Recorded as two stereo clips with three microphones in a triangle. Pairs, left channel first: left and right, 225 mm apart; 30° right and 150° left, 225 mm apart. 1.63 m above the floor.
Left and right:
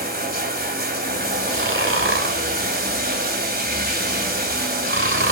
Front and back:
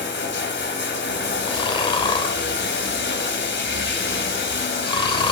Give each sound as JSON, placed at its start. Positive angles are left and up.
{"t": 0.0, "sound": "running water", "azimuth_deg": -50, "distance_m": 2.5}
{"t": 1.4, "sound": "snoring", "azimuth_deg": -95, "distance_m": 2.5}